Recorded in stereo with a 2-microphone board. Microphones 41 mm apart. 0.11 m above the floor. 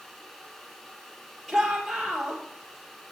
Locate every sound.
1.5 s a shout: 5° left (ahead or behind), 2.5 m